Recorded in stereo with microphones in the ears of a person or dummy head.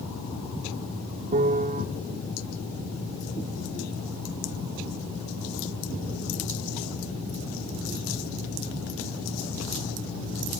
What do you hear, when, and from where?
1.3 s a piano: 35° right (ahead or behind), 1.1 m